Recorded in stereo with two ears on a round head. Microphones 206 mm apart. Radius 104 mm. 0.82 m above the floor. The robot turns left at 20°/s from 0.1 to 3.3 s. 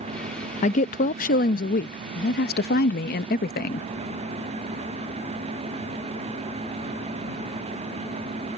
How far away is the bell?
No bell in this recording.